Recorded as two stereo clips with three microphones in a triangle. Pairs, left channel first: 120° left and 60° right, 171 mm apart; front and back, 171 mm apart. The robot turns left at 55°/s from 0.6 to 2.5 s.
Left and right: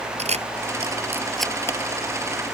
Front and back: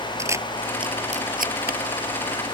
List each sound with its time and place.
0.2 s a camera shutter: 105° right; by 1.8 s 170° right